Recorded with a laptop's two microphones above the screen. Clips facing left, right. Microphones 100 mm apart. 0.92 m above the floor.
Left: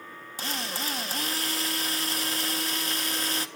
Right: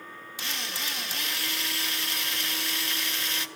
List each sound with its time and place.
0.4 s a drill: 40° left (ahead or behind), 1.6 m